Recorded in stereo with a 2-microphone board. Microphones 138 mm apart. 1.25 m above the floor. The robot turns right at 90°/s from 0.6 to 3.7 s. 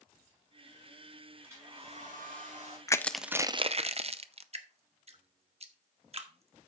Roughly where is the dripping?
Right.